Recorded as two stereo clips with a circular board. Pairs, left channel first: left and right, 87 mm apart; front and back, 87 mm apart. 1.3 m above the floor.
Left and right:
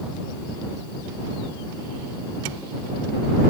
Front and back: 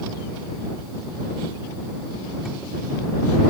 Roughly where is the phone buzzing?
No phone buzzing in this recording.